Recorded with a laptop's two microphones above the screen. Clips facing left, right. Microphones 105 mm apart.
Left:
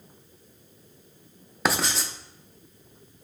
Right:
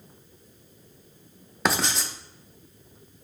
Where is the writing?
Centre (ahead or behind), 0.5 m.